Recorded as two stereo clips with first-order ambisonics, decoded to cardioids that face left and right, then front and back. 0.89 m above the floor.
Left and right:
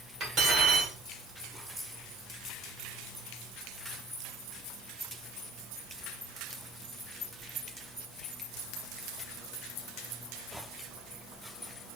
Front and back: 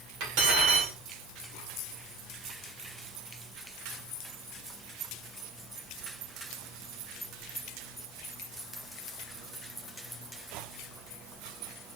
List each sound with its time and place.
0.2 s cutlery clinking: 155° right, 1.9 m